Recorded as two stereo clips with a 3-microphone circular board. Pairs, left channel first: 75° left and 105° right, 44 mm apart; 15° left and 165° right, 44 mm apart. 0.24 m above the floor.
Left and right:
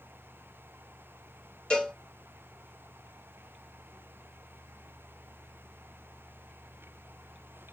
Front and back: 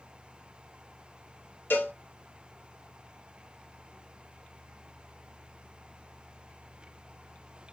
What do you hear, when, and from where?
1.7 s a cowbell: 10° left, 0.8 m